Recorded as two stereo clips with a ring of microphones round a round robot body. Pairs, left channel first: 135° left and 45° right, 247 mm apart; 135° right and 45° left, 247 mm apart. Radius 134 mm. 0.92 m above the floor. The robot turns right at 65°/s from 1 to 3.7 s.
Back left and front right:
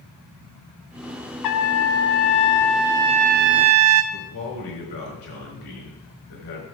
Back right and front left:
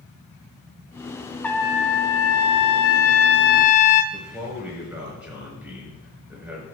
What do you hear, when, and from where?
1.4 s a trumpet: 140° left, 0.6 m; by 4.0 s 75° right, 0.6 m
4.1 s a man speaking: 125° left, 4.5 m